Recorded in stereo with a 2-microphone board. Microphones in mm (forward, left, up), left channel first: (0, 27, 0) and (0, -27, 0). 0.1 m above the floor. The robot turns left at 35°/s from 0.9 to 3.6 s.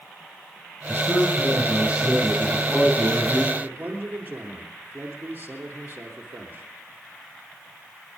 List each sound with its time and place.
0.9 s a man speaking: 125° right, 5.5 m; by 3.4 s 150° left, 5.5 m
3.5 s a man speaking: 30° right (ahead or behind), 2.5 m; by 6.7 s 35° right (ahead or behind), 2.5 m